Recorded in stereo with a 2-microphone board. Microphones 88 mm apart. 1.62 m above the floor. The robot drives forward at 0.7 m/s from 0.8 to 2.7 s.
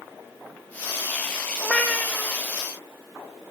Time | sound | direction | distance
1.6 | a cat meowing | 15° left (ahead or behind) | 1.0 m